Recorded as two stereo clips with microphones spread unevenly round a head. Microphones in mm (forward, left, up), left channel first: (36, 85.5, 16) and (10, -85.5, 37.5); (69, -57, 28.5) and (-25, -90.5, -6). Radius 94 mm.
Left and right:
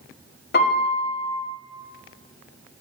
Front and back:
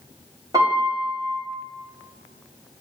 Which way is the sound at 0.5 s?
125° left.